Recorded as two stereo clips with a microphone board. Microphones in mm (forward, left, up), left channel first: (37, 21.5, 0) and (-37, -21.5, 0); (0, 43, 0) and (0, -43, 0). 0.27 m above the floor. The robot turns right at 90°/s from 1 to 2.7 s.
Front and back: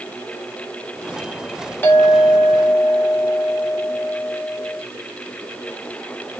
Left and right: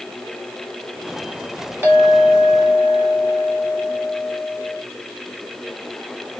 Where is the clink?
30° right, 1.3 m; by 4.8 s 50° left, 1.3 m.